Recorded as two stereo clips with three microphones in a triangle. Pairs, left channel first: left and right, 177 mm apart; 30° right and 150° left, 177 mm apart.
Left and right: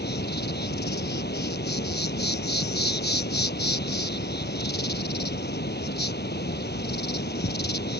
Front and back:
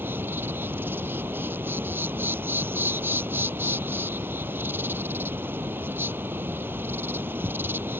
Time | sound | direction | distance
0.0 | an insect | 70° left | ?